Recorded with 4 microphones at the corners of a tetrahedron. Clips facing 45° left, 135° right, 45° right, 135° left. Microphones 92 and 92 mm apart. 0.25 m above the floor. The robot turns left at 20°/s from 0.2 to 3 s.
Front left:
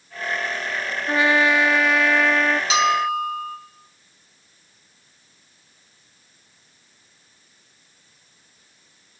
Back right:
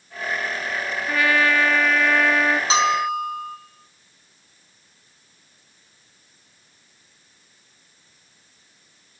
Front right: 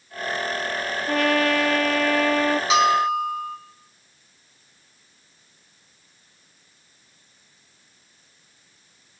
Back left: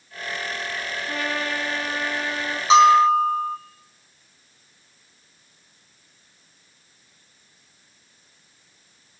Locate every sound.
1.1 s a trumpet: 20° right, 1.0 m; by 2.6 s 50° right, 1.0 m
2.7 s a bell: 175° right, 2 m; by 3.6 s straight behind, 2 m